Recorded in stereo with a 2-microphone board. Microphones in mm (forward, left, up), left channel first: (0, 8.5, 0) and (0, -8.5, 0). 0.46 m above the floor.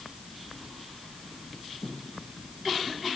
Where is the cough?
I don't hear a cough.